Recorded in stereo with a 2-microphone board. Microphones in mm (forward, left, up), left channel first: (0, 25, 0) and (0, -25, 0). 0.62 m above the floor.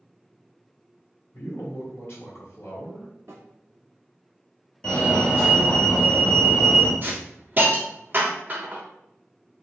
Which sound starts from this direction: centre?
A fire alarm, at 4.8 s.